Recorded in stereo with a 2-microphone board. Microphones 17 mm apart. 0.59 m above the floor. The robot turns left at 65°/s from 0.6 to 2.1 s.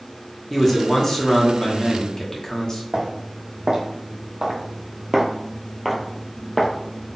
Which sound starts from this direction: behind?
A man speaking, at 0.5 s.